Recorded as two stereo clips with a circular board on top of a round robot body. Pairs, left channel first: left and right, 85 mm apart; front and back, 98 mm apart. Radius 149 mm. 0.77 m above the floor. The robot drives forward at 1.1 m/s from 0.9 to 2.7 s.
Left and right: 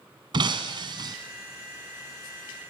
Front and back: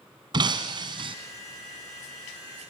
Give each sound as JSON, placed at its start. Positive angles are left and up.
{"t": 0.3, "sound": "breaking glass", "azimuth_deg": -130, "distance_m": 1.5}